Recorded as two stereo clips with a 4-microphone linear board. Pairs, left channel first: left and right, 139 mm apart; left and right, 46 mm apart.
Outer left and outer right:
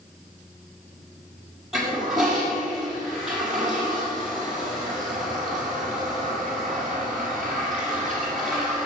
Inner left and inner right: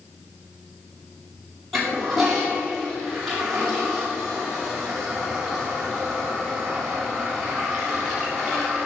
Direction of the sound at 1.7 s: Centre (ahead or behind).